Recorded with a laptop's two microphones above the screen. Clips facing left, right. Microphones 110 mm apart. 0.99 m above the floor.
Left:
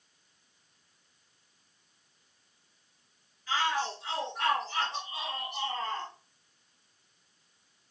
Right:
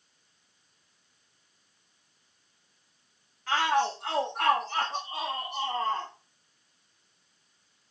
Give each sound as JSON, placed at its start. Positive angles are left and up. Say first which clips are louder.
{"t": 3.5, "sound": "a shout", "louder": "right 5 dB", "side_deg": -70, "distance_m": 1.8}